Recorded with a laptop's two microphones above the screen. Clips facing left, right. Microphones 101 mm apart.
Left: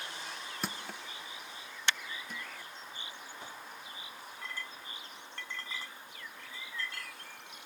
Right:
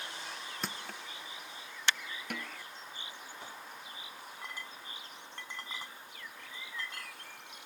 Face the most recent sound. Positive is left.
turn(degrees=-15)  # may be behind; listen again after turning